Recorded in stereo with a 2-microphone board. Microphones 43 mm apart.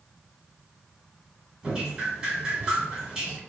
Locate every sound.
1.6 s dripping: 15° right (ahead or behind), 1.4 m